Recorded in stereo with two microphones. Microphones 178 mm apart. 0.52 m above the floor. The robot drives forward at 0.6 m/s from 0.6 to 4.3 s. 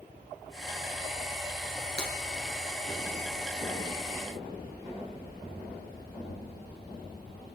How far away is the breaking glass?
About 3 m.